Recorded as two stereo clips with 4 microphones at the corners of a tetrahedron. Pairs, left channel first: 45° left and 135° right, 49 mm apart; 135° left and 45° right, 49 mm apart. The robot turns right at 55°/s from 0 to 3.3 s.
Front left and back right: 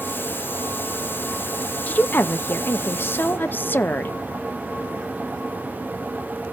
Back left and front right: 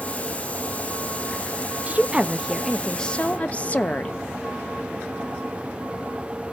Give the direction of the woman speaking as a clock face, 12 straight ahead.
12 o'clock.